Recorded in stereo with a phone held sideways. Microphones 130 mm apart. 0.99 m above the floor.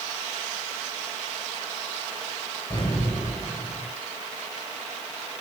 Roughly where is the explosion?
Left.